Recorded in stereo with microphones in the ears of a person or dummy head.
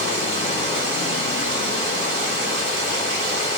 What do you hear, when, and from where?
0.0 s running water: 75° right (ahead or behind), 1.5 m